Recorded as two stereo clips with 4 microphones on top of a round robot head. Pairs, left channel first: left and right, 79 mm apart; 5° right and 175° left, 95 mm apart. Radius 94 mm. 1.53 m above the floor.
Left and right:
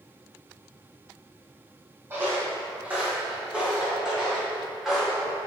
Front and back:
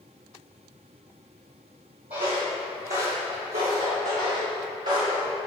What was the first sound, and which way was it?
Footsteps, 145° right.